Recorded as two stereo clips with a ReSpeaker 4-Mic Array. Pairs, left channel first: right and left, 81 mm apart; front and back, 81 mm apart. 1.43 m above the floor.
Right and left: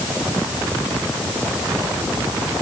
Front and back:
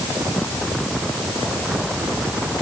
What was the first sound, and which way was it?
Only background noise.